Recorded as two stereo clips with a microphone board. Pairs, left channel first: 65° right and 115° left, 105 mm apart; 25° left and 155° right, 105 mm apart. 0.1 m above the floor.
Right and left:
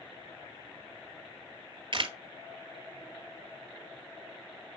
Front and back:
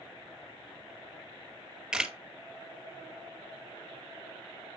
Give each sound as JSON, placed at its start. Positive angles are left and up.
{"t": 1.9, "sound": "a camera shutter", "azimuth_deg": 120, "distance_m": 0.9}